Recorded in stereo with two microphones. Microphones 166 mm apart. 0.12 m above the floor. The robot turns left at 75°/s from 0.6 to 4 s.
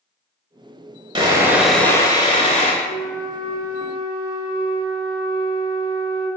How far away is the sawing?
About 0.6 m.